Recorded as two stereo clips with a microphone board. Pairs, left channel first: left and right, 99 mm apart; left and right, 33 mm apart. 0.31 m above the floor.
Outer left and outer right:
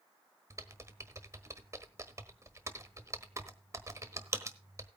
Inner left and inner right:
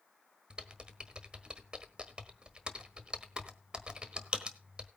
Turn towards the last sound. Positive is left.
turn(degrees=-30)  # may be behind; listen again after turning